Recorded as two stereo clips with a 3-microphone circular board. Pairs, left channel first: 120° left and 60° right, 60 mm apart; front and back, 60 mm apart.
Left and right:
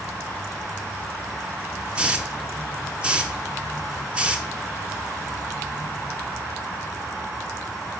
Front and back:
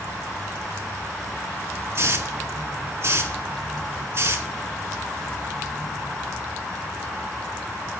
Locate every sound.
1.9 s a hiss: 135° right, 0.8 m